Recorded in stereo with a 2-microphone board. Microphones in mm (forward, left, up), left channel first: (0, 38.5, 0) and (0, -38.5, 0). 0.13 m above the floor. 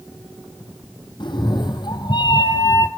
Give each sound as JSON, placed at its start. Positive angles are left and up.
{"t": 1.2, "sound": "a cat meowing", "side_deg": 75, "distance_m": 2.5}